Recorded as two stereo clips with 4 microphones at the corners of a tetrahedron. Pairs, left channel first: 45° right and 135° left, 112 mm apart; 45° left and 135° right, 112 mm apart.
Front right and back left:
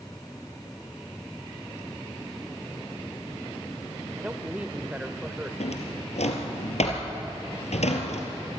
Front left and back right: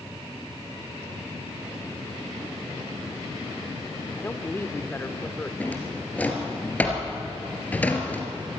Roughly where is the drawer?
Ahead right.